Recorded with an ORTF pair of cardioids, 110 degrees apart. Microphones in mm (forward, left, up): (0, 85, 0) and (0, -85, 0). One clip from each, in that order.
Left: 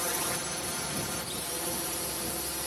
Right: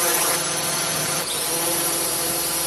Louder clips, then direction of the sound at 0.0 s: Right 10 dB; 65° right.